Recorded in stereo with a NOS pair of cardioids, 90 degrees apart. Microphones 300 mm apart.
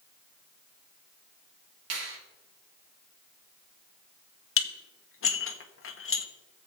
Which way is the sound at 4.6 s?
45° left.